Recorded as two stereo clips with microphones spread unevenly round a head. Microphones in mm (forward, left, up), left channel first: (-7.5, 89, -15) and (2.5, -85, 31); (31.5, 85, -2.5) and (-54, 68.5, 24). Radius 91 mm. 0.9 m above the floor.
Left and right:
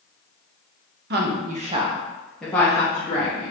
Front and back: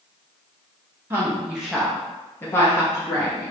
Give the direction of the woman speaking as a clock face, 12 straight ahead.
3 o'clock.